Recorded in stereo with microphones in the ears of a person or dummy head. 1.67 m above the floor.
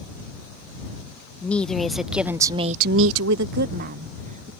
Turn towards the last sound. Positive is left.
turn(degrees=-45)  # may be behind; listen again after turning